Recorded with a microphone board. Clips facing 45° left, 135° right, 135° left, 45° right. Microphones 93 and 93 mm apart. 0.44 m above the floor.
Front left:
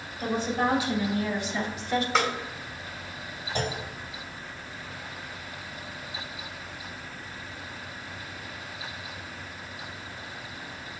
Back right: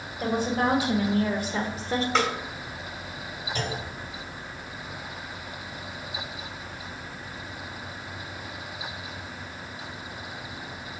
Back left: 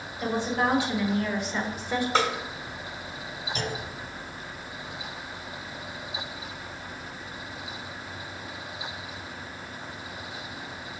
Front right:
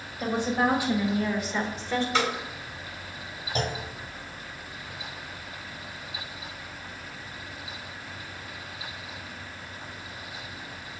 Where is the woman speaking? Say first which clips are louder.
Back right 2 dB, front right 1 dB; 115° right, 2 m; by 2.0 s 160° right, 1.2 m.